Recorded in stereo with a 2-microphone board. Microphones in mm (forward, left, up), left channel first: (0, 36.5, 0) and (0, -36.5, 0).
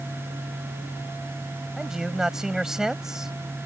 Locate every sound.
1.8 s a man speaking: 5° right (ahead or behind)